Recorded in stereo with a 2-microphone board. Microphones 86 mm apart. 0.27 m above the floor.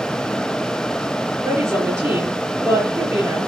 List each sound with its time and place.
1.4 s a woman speaking: 30° right (ahead or behind), 7 m